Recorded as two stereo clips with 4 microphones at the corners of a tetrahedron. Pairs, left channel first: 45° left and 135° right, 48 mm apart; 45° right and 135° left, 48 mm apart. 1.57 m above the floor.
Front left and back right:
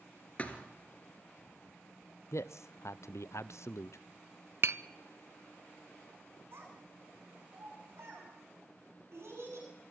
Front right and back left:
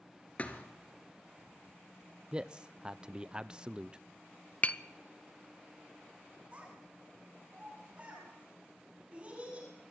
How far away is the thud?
About 2.0 m.